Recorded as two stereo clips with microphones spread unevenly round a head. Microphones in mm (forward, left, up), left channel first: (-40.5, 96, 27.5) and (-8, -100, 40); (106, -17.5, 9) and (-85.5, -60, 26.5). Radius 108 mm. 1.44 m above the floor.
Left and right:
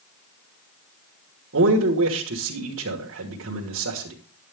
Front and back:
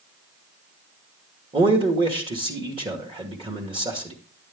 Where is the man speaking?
105° right, 1.5 m.